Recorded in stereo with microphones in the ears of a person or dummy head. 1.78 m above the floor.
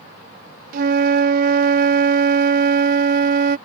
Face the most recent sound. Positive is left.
turn(degrees=-55)  # may be behind; listen again after turning